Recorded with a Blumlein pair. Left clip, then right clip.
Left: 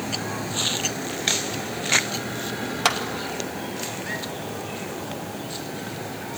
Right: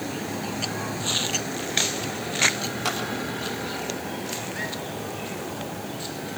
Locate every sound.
2.9 s a clap: 25° left, 2 m